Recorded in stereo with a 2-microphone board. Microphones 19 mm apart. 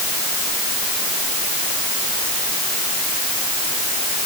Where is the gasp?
I don't hear a gasp.